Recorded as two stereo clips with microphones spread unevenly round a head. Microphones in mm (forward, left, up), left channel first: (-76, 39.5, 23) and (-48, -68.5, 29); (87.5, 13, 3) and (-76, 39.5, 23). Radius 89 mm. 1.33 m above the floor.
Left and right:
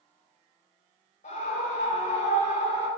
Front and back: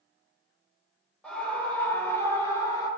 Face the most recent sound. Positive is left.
turn(degrees=60)